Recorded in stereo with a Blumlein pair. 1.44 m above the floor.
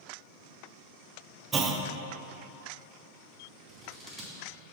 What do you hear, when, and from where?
1.5 s a clunk: 20° right, 0.5 m
3.7 s scissors: 15° right, 2 m